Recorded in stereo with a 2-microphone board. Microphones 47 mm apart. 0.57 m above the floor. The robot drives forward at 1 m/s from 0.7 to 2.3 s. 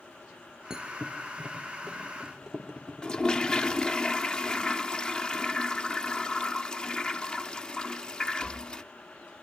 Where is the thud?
15° right (ahead or behind), 2.5 m; by 3.8 s 10° right (ahead or behind), 4 m.